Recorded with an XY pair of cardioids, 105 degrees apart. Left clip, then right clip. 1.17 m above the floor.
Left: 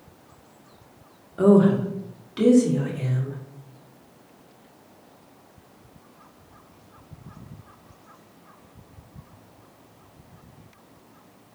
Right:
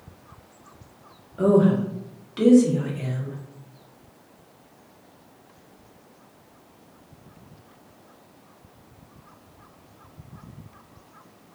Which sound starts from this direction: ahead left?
A woman speaking, at 1.4 s.